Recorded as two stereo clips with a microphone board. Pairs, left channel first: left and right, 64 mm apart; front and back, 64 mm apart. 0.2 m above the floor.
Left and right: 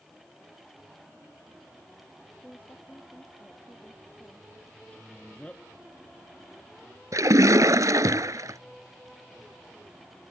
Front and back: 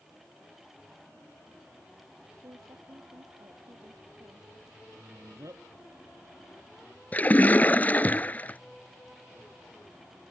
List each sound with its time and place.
2.4 s a woman speaking: 155° left
4.9 s a man speaking: 160° left
7.1 s a splash: 65° right